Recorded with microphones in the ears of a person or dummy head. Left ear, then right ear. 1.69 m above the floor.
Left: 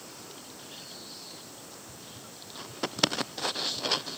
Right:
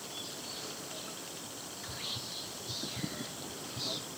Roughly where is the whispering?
Right.